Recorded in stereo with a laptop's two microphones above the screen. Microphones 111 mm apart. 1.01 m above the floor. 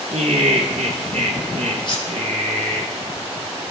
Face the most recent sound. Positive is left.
turn(degrees=45)  # may be behind; listen again after turning